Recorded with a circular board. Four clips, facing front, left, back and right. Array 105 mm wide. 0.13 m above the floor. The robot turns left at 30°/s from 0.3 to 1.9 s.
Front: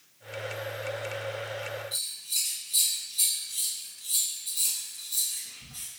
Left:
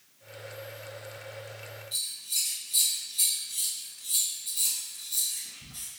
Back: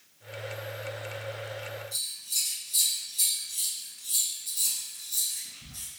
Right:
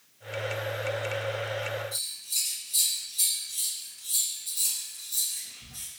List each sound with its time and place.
1.9 s scissors: 15° left, 1.7 m